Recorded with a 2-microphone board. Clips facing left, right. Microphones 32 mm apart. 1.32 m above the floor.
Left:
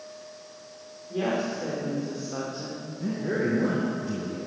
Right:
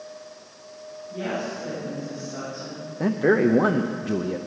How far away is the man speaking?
About 0.7 m.